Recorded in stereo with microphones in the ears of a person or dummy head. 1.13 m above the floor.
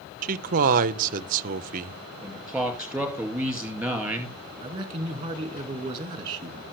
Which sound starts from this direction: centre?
A man speaking, at 2.2 s.